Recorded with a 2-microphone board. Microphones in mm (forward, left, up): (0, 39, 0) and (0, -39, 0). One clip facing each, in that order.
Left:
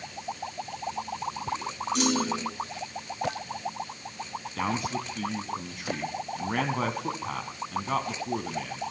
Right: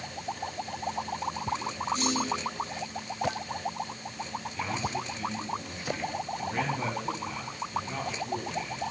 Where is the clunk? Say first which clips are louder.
Left 7 dB; 80° left, 2.5 m.